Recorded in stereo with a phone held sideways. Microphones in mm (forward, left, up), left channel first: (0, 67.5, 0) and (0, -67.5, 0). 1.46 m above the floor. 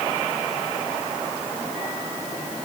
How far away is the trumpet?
No trumpet in this recording.